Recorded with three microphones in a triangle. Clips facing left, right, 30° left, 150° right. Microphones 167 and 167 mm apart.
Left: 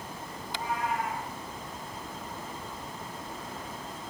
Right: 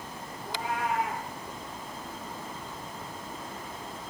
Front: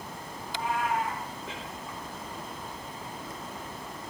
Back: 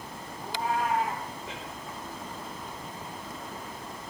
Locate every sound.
0.4 s a cat meowing: 100° right, 2.5 m